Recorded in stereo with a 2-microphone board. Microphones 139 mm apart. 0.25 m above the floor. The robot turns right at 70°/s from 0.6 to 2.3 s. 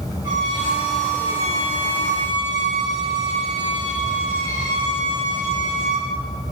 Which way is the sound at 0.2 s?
25° right.